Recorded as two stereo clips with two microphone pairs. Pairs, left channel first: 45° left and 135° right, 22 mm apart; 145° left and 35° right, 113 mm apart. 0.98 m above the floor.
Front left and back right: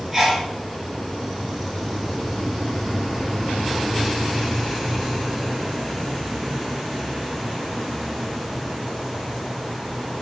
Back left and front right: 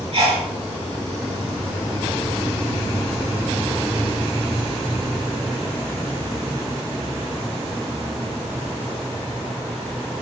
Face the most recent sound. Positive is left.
turn(degrees=-65)